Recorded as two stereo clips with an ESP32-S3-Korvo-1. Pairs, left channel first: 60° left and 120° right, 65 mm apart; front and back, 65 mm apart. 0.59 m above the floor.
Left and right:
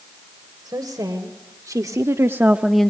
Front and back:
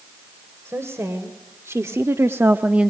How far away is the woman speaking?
About 2.5 m.